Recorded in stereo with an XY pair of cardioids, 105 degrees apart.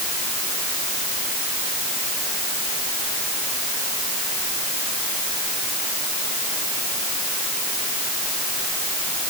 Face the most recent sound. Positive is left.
No sound to turn to.